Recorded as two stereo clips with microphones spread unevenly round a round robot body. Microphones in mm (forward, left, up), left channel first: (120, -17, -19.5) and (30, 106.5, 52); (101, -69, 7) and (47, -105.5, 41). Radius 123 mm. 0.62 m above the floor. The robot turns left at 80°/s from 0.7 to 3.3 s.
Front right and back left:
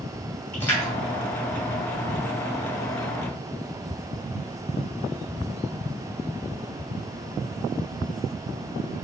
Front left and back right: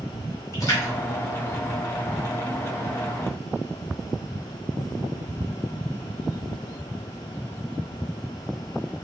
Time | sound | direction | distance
0.5 | a splash | 20° left | 2.5 m